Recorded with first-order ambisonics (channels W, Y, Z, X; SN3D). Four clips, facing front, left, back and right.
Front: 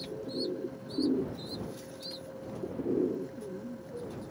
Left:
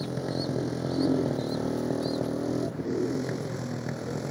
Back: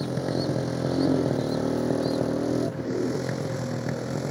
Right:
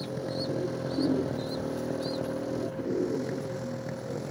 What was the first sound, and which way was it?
A motorcycle, 165° left.